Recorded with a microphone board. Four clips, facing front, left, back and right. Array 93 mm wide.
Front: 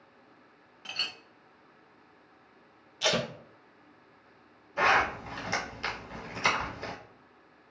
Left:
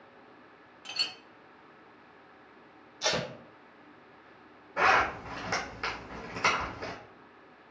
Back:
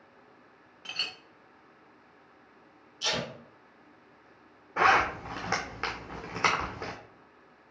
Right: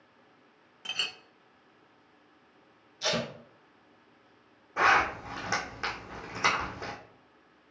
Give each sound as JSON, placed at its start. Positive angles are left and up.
{"t": 0.8, "sound": "a clink", "azimuth_deg": -95, "distance_m": 0.7}
{"t": 3.0, "sound": "tape being pulled", "azimuth_deg": 5, "distance_m": 1.0}
{"t": 4.8, "sound": "a zipper", "azimuth_deg": -165, "distance_m": 2.0}